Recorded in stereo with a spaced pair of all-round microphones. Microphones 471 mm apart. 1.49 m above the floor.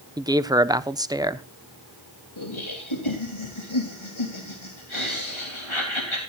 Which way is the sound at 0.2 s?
10° right (ahead or behind).